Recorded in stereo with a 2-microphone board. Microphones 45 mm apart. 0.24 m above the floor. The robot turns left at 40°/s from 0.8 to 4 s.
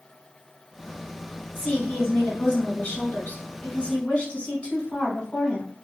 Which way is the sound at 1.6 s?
160° left.